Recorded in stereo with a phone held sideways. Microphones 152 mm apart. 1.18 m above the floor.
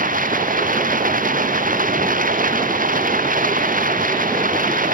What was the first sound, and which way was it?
Running water, 65° right (ahead or behind).